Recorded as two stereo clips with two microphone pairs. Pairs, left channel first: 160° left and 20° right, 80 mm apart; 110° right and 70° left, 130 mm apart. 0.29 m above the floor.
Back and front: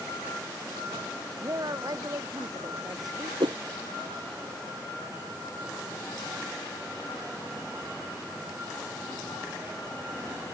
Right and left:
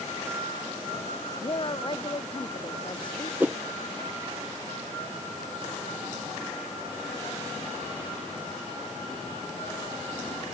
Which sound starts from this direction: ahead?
A whoosh, at 3.4 s.